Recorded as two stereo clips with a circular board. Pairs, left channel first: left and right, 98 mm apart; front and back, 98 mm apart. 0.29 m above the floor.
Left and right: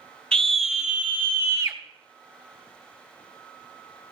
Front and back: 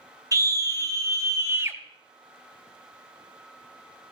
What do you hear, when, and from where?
0.3 s a scream: 165° left, 1.1 m; by 1.8 s 130° right, 1.3 m